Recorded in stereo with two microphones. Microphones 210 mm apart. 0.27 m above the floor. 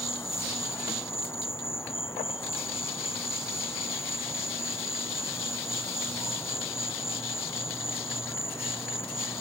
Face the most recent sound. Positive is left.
turn(degrees=10)  # may be behind; listen again after turning